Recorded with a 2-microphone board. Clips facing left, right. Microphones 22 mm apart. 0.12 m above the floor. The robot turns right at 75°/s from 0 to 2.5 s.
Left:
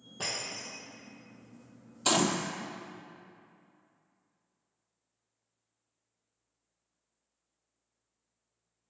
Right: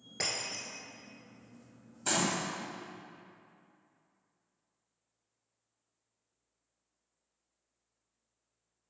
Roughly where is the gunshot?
Left.